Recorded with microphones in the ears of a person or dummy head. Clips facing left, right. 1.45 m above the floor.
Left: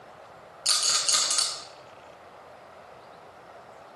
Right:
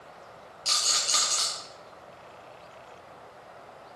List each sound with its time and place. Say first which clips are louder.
0.7 s a rattle: even; 10° left (ahead or behind), 1.0 m